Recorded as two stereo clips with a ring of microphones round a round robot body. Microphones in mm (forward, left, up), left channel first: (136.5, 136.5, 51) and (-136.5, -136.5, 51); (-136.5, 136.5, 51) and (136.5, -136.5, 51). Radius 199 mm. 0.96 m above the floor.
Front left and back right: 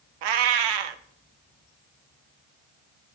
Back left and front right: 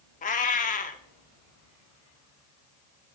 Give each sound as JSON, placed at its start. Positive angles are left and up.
{"t": 0.2, "sound": "a cat meowing", "azimuth_deg": -155, "distance_m": 0.7}